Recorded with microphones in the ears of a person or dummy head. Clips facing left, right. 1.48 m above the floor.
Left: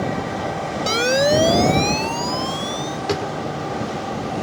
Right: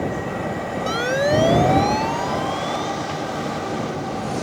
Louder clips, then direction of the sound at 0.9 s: Left 3 dB; 35° left (ahead or behind).